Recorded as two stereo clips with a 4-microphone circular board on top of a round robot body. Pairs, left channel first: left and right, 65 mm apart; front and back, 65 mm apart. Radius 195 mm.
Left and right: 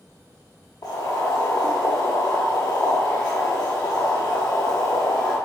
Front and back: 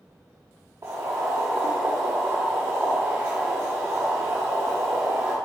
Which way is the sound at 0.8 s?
130° left.